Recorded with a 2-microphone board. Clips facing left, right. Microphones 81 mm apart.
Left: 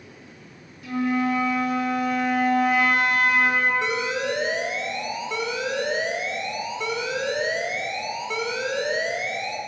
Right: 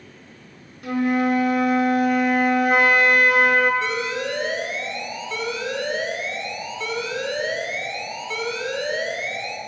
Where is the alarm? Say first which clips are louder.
Even; 20° left (ahead or behind), 0.7 m.